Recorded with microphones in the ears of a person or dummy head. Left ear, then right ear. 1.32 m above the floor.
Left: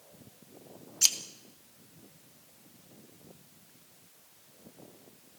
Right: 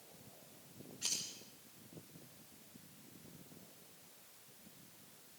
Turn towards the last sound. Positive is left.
turn(degrees=70)  # may be behind; listen again after turning